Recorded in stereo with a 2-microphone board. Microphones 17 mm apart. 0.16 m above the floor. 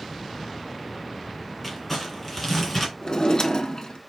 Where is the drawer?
50° left (ahead or behind), 0.5 m.